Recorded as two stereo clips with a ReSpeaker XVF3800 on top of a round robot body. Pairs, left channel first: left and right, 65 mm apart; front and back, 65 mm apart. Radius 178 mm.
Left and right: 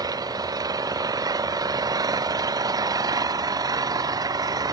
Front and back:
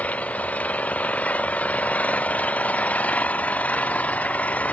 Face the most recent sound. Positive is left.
turn(degrees=-70)